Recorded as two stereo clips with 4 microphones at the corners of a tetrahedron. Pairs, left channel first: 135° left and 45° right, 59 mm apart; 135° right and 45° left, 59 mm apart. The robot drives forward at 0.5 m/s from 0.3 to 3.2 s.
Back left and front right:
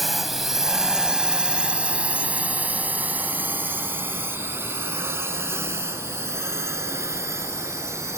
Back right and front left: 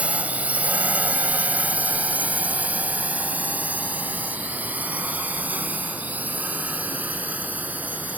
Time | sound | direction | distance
0.0 | a drone | 45° left | ?